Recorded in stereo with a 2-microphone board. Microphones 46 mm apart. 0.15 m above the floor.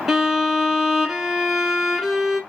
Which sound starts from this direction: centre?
A violin, at 0.1 s.